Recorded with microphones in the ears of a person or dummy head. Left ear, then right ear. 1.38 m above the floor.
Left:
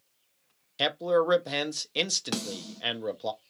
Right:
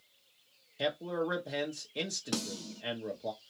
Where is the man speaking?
50° left (ahead or behind), 0.9 m.